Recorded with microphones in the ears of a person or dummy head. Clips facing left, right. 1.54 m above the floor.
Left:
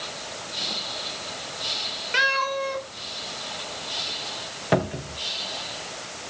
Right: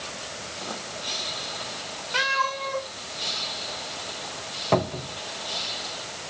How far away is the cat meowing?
About 2.5 m.